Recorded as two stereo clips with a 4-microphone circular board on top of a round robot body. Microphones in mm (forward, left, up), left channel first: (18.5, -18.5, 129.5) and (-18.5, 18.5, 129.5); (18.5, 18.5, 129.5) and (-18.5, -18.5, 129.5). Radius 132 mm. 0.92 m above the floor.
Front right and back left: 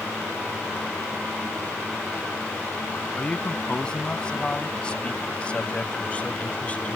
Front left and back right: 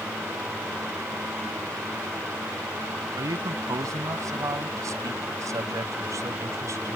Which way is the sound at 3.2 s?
120° right.